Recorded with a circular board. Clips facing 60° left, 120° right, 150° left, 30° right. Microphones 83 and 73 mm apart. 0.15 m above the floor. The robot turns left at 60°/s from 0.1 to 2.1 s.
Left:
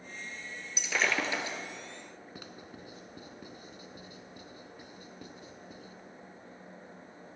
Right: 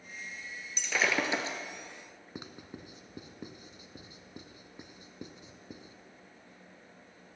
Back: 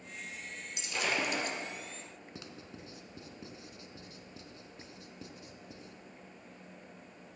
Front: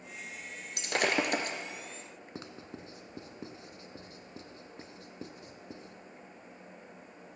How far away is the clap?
No clap in this recording.